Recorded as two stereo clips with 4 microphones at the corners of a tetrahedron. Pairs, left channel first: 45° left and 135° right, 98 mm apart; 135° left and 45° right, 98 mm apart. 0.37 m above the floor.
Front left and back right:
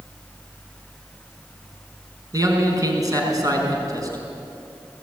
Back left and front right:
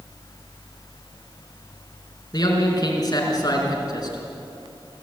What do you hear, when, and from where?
2.3 s a man speaking: straight behind, 4.5 m